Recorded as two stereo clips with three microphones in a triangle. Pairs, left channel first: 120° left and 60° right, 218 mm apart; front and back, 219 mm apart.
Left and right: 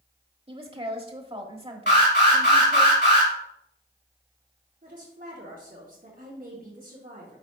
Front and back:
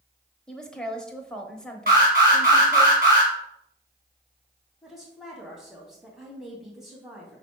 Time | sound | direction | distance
0.5 | a woman speaking | 85° right | 1.1 m
1.9 | an alarm | 140° left | 3.5 m
4.8 | a woman speaking | 95° right | 2.5 m